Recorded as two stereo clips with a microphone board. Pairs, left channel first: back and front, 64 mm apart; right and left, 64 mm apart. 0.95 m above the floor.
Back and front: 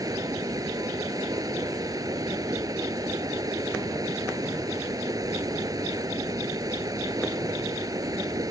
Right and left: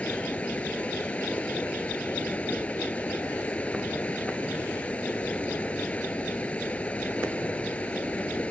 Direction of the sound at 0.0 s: 20° right.